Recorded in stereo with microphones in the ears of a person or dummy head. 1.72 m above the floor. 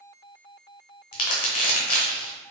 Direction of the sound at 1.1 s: 45° left (ahead or behind).